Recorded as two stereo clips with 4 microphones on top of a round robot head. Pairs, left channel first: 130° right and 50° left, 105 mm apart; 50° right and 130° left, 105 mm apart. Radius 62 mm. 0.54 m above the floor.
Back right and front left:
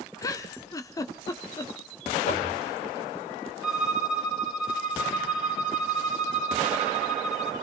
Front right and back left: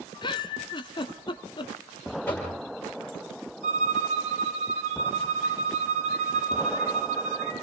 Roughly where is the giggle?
Right.